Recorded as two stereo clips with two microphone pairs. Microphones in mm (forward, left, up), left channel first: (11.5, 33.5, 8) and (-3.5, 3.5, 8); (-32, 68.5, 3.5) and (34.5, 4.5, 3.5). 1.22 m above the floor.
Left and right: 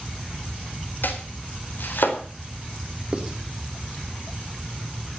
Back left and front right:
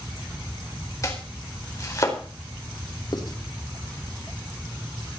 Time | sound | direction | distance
1.0 | chopping | 80° left | 4 m
3.1 | writing | 175° left | 3 m